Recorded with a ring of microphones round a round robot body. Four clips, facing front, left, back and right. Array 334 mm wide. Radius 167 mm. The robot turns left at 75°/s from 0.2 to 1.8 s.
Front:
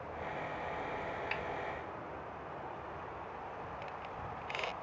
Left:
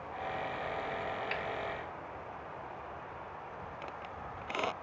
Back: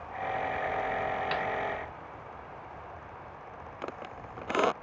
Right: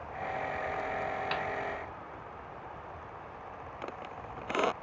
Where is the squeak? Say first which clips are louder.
Right 2 dB, back 3 dB; 155° right.